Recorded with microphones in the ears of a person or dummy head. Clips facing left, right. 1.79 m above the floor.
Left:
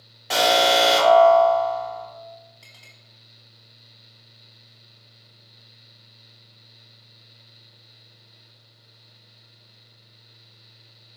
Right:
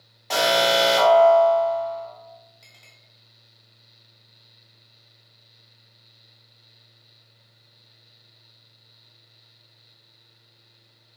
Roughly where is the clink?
Centre.